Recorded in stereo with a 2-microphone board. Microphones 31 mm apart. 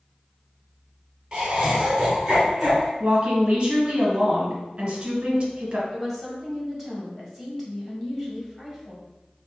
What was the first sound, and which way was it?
Laughter, 15° right (ahead or behind).